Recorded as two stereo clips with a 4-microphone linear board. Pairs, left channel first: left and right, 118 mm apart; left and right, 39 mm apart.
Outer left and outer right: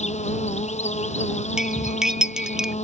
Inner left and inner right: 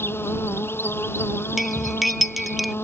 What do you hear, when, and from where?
0.0 s an insect: 75° left (ahead or behind)
1.6 s cutlery clinking: 5° right (ahead or behind)